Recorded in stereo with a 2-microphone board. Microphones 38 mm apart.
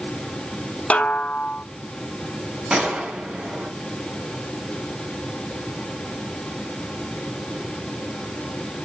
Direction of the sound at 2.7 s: 35° right (ahead or behind).